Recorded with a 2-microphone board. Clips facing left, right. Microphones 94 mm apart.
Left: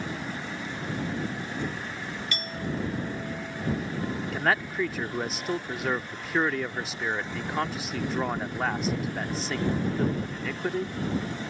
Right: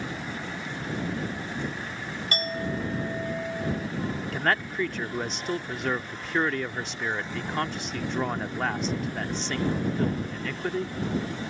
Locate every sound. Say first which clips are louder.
2.3 s a clink: right 4 dB; 45° right (ahead or behind)
4.3 s a man speaking: even; 5° left (ahead or behind)